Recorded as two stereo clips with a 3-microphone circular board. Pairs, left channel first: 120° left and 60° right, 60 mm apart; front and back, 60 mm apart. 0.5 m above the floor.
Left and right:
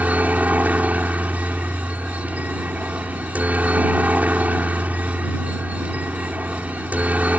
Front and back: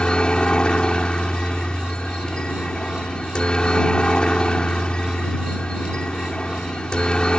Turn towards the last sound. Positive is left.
turn(degrees=-55)